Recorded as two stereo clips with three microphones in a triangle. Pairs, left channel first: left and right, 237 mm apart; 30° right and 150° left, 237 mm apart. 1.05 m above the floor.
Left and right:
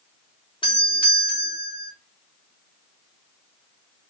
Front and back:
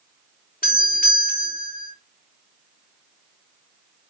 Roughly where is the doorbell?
Ahead.